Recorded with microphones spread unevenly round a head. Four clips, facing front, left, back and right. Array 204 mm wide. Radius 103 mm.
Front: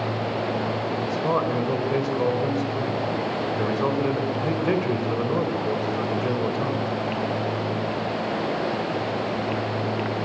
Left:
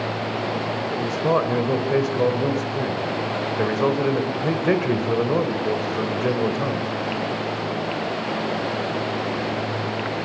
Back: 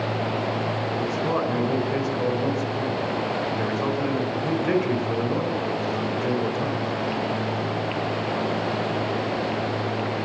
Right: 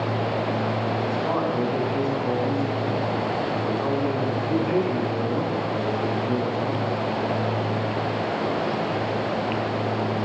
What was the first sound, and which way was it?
A man speaking, 80° left.